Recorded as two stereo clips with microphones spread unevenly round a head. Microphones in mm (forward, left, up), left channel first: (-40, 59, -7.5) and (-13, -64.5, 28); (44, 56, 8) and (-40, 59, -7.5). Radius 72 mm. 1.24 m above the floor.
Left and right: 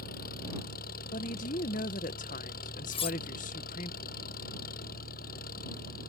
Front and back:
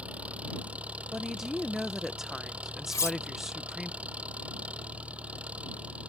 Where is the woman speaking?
95° left.